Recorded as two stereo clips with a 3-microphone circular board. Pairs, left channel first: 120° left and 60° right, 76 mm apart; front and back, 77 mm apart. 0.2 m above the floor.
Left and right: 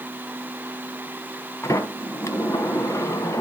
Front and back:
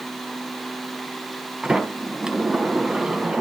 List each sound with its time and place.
1.6 s a sliding door: 105° left, 1.2 m